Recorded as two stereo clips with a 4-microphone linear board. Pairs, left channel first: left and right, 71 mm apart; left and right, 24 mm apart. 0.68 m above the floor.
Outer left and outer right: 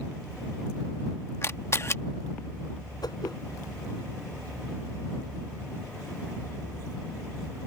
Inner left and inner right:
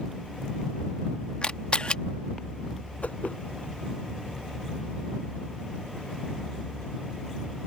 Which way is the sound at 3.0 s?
75° left (ahead or behind).